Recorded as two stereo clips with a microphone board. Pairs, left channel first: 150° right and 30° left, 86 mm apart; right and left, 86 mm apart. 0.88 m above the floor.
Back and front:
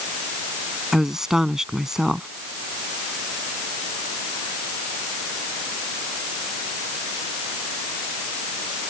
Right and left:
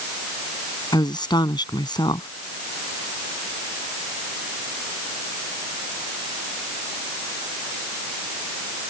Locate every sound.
0.9 s a woman speaking: 55° right